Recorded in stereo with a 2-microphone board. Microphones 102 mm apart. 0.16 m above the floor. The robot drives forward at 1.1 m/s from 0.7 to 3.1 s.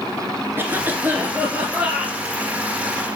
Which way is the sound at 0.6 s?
20° right (ahead or behind).